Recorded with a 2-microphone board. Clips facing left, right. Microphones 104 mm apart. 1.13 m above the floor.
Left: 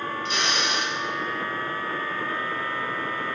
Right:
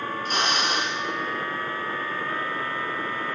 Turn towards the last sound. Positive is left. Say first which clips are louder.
# right 3 dB
turn(degrees=-50)  # may be behind; listen again after turning